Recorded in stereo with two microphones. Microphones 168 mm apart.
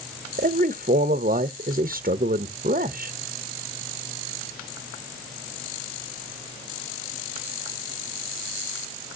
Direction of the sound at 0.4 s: 60° right (ahead or behind).